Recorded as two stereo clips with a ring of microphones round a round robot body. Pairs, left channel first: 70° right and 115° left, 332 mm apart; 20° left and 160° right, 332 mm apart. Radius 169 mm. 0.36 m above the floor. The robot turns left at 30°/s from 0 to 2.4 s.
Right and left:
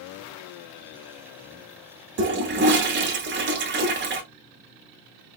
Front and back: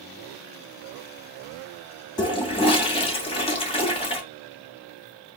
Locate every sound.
2.2 s a toilet flushing: 90° left, 1.2 m; by 4.2 s 85° left, 1.2 m